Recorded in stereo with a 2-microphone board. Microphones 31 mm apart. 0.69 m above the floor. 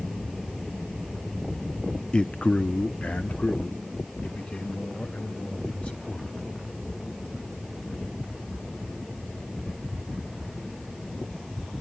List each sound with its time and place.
2.1 s a man speaking: 30° left (ahead or behind), 0.5 m; by 6.5 s 55° left (ahead or behind), 4 m